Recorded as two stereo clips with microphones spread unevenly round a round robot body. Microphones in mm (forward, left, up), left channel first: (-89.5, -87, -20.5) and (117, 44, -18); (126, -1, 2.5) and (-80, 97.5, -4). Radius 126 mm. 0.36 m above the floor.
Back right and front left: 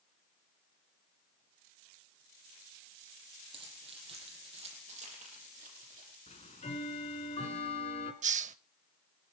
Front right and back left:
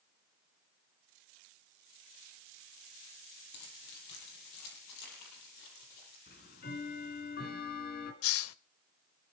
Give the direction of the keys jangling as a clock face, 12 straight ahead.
1 o'clock.